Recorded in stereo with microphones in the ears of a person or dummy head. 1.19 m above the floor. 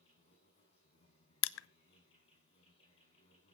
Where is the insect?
30° left (ahead or behind), 6.5 m.